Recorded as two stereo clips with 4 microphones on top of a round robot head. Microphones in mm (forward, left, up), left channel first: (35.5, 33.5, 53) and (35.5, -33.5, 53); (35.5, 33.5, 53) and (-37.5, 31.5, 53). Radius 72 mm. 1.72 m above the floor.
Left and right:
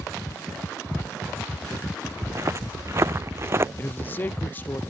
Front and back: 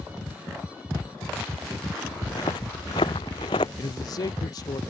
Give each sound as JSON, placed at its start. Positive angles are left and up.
{"t": 2.2, "sound": "footsteps", "azimuth_deg": -45}
{"t": 3.8, "sound": "a man speaking", "azimuth_deg": 30}